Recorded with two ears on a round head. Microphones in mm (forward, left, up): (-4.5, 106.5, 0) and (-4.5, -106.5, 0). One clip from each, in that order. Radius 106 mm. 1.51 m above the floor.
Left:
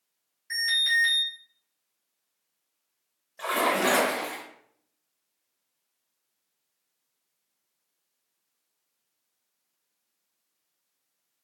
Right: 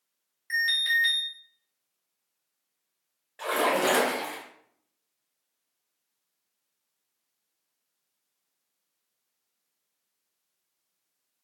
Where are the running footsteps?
No running footsteps in this recording.